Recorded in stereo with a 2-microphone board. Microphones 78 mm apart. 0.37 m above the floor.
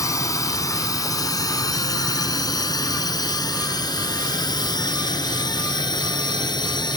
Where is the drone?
45° left (ahead or behind); by 7.0 s 70° left (ahead or behind).